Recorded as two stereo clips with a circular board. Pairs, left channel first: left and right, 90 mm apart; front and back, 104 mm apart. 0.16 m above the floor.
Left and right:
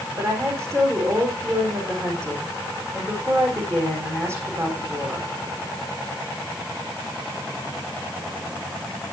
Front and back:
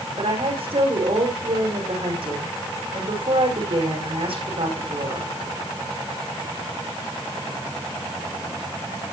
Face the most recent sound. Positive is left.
turn(degrees=-150)